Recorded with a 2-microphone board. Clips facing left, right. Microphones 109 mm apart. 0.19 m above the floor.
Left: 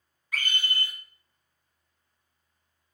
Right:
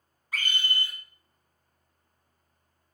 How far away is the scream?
About 1.4 m.